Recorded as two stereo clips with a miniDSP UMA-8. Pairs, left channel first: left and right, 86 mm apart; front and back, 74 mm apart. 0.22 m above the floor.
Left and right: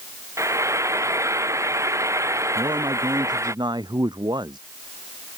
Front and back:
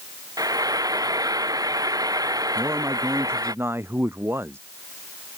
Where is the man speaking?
125° right.